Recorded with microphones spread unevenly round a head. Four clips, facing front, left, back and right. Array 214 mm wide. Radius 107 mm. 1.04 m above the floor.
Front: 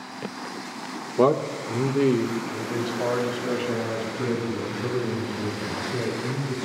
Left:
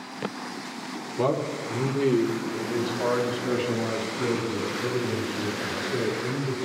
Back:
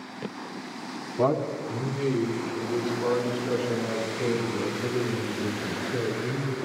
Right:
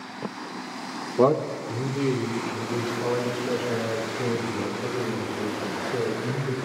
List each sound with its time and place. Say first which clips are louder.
1.2 s a man speaking: right 5 dB, front 4 dB; 35° right, 1.3 m; by 6.6 s 60° left, 8.5 m